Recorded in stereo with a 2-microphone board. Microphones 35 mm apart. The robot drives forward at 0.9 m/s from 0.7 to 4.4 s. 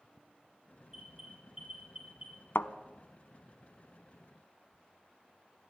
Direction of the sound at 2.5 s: 80° left.